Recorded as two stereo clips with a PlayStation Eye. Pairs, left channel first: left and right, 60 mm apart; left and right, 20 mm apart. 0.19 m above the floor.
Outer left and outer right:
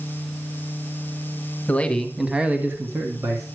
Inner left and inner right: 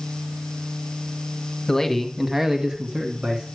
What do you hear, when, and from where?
1.7 s a man speaking: 25° left (ahead or behind), 1.3 m; by 3.5 s 60° right (ahead or behind), 2 m